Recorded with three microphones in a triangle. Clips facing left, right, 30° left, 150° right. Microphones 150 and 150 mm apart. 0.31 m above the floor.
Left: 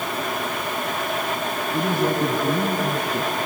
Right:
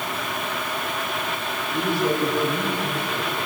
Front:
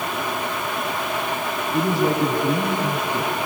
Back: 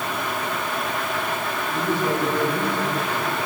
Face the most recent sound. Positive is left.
turn(degrees=85)